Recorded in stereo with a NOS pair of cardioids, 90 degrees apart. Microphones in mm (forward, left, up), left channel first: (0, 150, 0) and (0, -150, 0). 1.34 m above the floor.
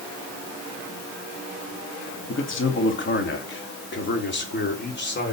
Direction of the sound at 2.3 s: 40° left.